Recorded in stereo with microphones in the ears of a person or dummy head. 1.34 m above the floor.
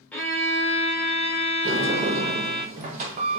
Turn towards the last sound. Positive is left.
turn(degrees=-45)  # may be behind; listen again after turning